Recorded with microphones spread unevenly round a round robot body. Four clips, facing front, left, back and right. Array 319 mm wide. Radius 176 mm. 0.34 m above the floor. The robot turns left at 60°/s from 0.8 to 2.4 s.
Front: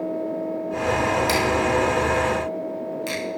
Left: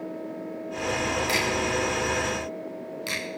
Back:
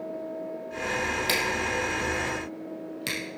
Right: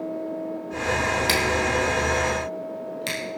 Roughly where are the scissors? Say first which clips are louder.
Right 3 dB, front 8 dB; right.